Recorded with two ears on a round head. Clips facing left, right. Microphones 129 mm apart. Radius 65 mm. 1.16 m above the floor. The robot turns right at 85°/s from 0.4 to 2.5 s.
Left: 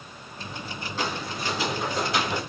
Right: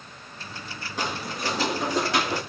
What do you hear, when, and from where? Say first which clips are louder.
1.0 s footsteps: right 1 dB; 15° right (ahead or behind), 2 m; by 2.4 s 35° right (ahead or behind), 3 m